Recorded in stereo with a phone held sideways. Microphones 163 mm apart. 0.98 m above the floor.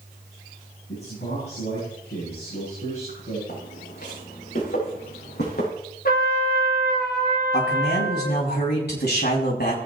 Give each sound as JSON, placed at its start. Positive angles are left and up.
{"t": 0.9, "sound": "a man speaking", "side_deg": 80, "distance_m": 9.5}
{"t": 3.5, "sound": "footsteps", "side_deg": 85, "distance_m": 9.5}
{"t": 6.0, "sound": "a trumpet", "side_deg": 70, "distance_m": 3.5}
{"t": 7.5, "sound": "a man speaking", "side_deg": 85, "distance_m": 7.0}